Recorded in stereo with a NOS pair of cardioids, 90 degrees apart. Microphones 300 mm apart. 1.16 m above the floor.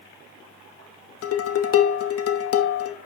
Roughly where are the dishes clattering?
Ahead left.